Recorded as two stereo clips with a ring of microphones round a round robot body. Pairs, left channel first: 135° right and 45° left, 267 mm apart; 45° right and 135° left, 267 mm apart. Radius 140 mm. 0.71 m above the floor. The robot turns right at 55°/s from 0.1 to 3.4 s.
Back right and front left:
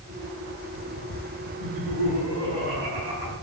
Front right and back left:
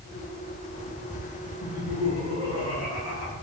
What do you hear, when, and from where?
1.6 s laughter: 105° right, 6 m; by 3.3 s 10° right, 6 m